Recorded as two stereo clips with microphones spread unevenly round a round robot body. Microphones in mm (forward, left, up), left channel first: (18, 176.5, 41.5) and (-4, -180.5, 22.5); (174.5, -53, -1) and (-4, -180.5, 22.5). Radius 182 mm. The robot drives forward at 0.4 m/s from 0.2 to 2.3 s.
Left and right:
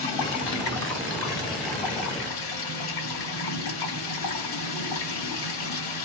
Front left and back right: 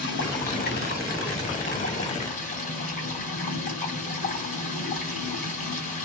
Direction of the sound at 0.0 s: 70° left.